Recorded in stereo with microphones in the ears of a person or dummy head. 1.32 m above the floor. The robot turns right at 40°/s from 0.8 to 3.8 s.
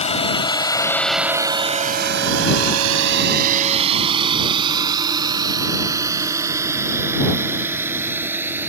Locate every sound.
0.0 s a drone: 40° left (ahead or behind); by 8.7 s 10° right (ahead or behind)